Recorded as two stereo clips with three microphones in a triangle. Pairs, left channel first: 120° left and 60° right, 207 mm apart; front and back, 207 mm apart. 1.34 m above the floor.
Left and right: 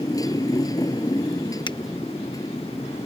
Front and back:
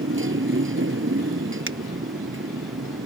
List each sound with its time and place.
0.0 s a motorcycle: 165° right
1.7 s a finger snap: 170° right